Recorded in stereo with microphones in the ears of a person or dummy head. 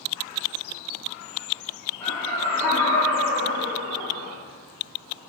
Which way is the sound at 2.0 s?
10° left (ahead or behind).